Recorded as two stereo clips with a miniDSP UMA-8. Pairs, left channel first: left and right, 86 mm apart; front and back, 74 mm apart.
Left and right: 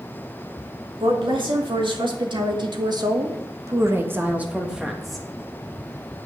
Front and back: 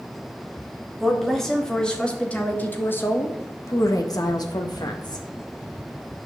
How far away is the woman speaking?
About 3 m.